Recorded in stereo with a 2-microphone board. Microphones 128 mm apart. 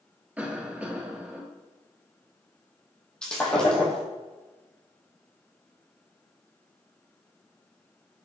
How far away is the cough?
About 2.5 m.